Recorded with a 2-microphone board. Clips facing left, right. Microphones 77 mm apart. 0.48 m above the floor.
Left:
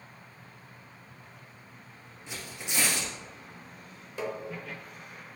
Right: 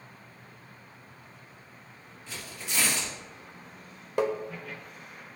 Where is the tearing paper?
20° left (ahead or behind), 3.5 m.